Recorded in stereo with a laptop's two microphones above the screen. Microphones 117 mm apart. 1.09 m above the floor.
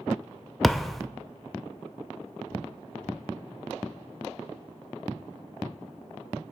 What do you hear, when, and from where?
0.6 s a thud: centre (ahead or behind), 0.5 m